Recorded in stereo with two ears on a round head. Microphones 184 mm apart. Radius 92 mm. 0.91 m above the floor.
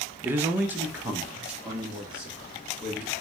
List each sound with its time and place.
0.2 s a man speaking: 10° right (ahead or behind), 0.5 m; by 3.1 s 5° right (ahead or behind), 2 m